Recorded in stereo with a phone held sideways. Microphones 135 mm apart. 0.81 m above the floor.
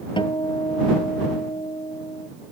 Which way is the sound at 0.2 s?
35° left (ahead or behind).